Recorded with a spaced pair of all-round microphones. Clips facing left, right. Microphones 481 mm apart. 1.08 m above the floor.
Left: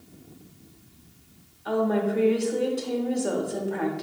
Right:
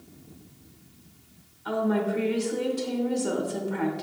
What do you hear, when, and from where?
1.6 s a woman speaking: 20° right (ahead or behind), 1.1 m